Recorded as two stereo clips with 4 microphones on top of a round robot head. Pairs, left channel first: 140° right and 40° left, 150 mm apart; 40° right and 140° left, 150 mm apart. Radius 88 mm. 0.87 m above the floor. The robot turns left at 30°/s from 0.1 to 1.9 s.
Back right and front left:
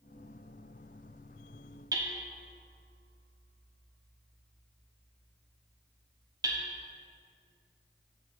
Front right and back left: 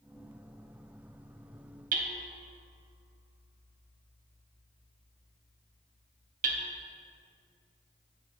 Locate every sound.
1.9 s hammering: 105° left, 0.7 m